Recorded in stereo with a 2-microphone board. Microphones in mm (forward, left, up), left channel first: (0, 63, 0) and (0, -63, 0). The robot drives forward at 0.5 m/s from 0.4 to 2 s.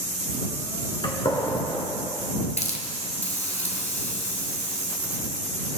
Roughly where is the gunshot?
Left.